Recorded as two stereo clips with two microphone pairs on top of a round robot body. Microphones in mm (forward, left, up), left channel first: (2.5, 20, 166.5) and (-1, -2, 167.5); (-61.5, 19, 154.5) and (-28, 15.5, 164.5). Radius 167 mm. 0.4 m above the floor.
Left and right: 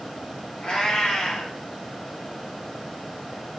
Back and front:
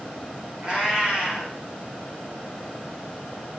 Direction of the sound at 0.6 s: 55° left.